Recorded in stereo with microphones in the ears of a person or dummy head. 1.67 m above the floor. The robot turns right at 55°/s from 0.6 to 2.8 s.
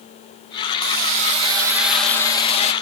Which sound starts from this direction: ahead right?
A hiss, at 0.8 s.